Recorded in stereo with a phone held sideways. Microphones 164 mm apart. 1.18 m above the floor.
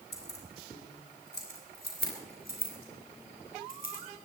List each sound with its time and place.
0.1 s keys jangling: 85° left, 3 m; by 4.0 s 60° left (ahead or behind), 5 m